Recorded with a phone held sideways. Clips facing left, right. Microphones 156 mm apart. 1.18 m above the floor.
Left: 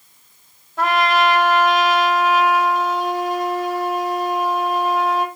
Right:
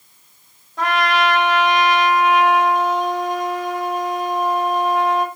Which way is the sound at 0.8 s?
5° left (ahead or behind).